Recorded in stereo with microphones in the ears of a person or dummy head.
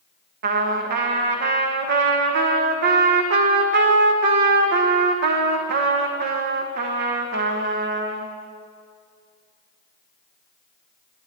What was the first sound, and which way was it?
A trumpet, 50° right (ahead or behind).